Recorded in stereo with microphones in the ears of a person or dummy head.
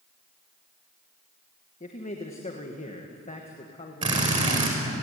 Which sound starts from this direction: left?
A man speaking, at 1.8 s.